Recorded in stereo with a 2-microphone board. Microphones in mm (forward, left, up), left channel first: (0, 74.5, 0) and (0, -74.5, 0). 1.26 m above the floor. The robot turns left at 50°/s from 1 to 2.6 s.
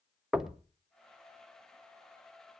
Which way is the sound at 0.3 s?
5° right (ahead or behind).